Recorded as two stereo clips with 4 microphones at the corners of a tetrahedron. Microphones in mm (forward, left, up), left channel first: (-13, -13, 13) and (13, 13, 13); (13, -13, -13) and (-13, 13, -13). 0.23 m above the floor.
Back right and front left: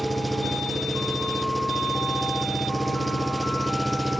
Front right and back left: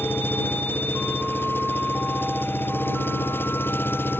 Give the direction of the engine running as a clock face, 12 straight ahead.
1 o'clock.